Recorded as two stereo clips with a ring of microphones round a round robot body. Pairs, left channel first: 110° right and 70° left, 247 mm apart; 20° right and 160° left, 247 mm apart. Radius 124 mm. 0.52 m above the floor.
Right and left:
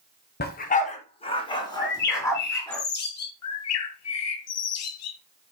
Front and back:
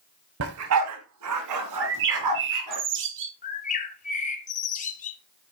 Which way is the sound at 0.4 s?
165° right.